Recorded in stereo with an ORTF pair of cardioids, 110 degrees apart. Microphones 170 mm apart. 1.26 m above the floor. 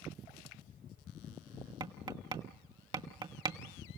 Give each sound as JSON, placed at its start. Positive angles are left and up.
{"t": 1.8, "sound": "tapping", "azimuth_deg": -30, "distance_m": 2.0}